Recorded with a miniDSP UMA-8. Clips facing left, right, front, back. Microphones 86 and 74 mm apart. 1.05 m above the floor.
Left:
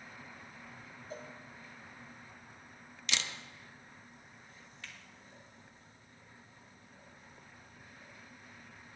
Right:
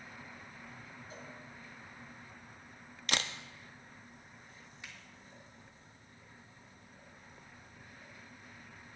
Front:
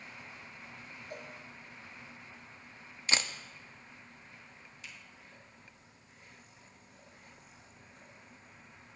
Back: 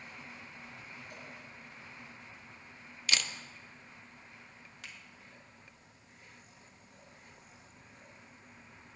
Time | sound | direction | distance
1.1 | a cowbell | 45° left | 1.2 m
3.1 | a camera shutter | 55° right | 0.6 m
4.8 | a finger snap | 160° right | 2.5 m